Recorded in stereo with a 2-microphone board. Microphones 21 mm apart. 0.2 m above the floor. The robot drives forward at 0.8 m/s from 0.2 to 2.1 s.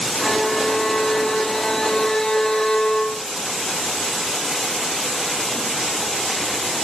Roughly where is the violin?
Left.